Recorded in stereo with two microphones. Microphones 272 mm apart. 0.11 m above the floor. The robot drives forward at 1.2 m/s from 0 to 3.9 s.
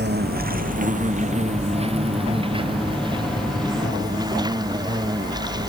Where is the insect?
40° right (ahead or behind); by 5.7 s 15° right (ahead or behind).